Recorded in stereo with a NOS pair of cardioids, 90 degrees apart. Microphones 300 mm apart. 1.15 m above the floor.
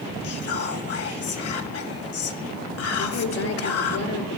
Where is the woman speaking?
70° left, 3.5 m.